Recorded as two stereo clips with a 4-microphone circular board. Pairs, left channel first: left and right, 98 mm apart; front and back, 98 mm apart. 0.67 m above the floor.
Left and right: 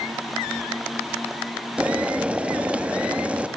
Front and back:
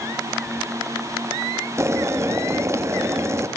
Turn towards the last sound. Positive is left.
turn(degrees=-155)